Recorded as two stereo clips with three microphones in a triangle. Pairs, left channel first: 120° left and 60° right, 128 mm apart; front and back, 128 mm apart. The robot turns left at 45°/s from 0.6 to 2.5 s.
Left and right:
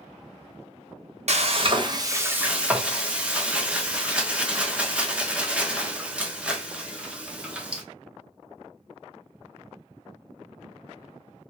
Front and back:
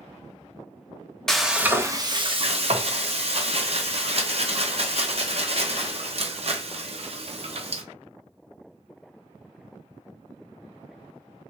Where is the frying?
85° right, 0.6 m; by 7.8 s 140° right, 0.6 m.